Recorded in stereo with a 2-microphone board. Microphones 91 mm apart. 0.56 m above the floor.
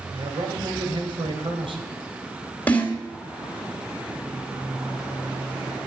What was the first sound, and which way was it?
A man speaking, 75° right (ahead or behind).